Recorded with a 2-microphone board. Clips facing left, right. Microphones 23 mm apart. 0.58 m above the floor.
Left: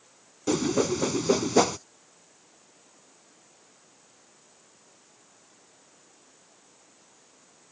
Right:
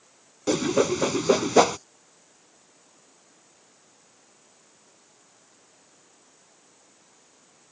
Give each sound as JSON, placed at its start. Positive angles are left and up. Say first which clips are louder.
{"t": 0.5, "sound": "a whoosh", "louder": "right 2 dB", "side_deg": -20}